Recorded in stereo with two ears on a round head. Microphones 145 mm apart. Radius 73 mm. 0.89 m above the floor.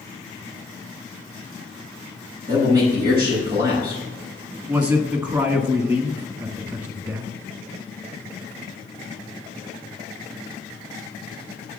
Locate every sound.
2.5 s a man speaking: 25° right (ahead or behind), 5.5 m
4.7 s a man speaking: 20° right (ahead or behind), 1.3 m